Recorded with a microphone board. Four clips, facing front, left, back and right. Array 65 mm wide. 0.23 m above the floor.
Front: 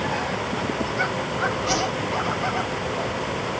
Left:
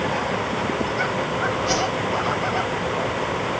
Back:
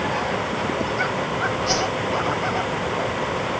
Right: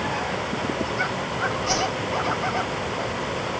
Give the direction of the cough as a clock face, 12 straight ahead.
I don't hear a cough.